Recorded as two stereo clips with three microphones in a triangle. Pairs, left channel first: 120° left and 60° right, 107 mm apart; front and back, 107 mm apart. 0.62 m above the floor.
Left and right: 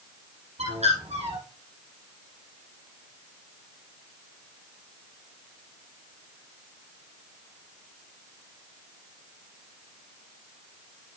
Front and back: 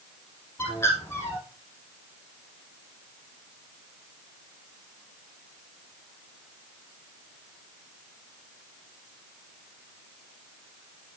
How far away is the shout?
I don't hear a shout.